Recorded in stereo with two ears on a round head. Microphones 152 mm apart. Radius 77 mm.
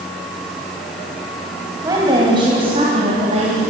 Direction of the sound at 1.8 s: 20° right (ahead or behind).